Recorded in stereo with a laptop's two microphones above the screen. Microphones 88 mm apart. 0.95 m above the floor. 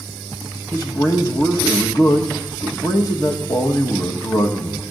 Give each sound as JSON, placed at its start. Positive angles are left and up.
{"t": 0.7, "sound": "a man speaking", "side_deg": 40, "distance_m": 1.2}